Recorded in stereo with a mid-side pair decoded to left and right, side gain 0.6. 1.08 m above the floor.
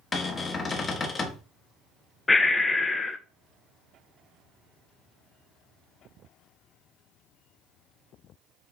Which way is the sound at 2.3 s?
15° left.